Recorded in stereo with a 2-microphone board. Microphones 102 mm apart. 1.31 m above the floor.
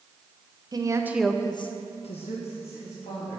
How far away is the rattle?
I don't hear a rattle.